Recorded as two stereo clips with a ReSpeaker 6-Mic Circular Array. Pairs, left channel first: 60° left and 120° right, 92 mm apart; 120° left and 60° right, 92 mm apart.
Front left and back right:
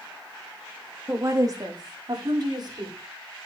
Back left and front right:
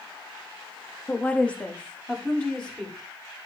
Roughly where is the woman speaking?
Behind.